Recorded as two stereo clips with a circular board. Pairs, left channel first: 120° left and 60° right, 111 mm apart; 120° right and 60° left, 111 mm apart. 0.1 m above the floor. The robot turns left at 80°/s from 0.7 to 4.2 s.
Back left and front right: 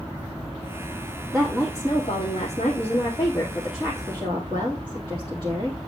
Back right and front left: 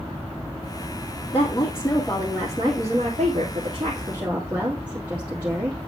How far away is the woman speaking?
About 3 m.